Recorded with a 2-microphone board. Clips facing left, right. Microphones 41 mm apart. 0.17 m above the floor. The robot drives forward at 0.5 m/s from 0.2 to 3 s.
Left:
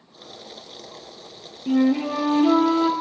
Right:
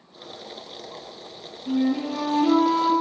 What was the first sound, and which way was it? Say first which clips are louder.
A flute: left 4 dB; 55° left (ahead or behind).